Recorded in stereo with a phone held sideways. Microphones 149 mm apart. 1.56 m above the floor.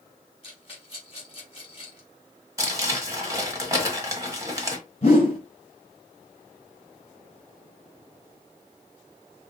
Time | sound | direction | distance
0.4 | a rattle | 40° left (ahead or behind) | 2.5 m
2.6 | crumpling | 20° right (ahead or behind) | 1.6 m
5.0 | a whoosh | 45° left (ahead or behind) | 2.5 m